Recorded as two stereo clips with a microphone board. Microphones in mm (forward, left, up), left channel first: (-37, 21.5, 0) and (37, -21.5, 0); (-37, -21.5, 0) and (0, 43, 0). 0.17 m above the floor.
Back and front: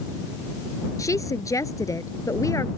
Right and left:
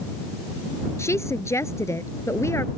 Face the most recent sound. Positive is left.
turn(degrees=-165)